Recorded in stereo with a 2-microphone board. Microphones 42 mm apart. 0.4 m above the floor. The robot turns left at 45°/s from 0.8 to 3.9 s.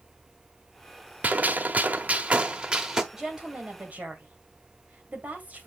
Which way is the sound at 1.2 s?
75° right.